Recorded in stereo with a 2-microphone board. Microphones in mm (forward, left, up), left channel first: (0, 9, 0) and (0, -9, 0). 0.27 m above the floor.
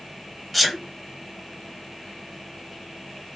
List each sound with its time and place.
0.5 s a sneeze: centre (ahead or behind), 1.4 m